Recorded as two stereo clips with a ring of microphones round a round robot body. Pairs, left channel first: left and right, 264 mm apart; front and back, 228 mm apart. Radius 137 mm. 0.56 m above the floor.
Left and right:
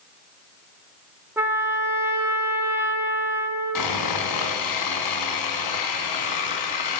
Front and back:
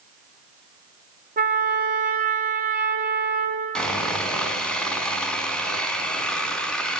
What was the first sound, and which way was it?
A trumpet, 165° right.